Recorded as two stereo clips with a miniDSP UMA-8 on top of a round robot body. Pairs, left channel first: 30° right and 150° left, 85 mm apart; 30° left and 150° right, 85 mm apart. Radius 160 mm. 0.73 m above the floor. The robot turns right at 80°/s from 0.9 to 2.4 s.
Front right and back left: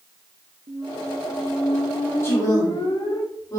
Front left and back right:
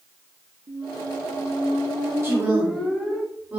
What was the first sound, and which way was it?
A squeak, 175° right.